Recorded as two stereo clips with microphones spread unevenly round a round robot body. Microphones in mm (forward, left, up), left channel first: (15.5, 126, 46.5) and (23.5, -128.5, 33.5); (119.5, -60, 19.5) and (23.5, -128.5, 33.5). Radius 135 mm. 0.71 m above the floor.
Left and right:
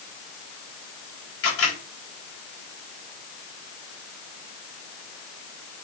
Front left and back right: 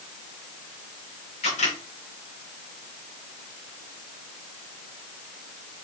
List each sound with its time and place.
1.4 s a camera shutter: 60° left, 4 m